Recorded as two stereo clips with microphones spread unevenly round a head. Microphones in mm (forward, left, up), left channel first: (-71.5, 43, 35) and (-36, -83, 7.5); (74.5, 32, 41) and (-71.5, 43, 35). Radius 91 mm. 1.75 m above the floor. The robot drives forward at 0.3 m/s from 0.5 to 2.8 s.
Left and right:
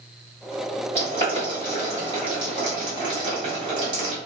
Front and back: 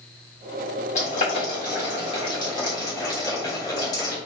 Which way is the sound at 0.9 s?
20° right.